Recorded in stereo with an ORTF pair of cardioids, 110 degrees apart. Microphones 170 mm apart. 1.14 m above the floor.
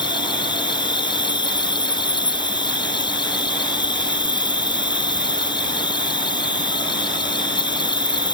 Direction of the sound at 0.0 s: 25° left.